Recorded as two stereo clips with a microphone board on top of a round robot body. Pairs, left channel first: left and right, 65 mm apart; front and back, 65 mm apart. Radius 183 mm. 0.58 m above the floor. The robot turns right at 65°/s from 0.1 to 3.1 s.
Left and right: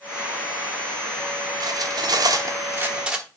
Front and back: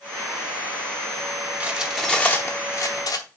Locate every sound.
1.6 s cutlery clinking: 110° right, 1.3 m; by 3.2 s 10° right, 1.3 m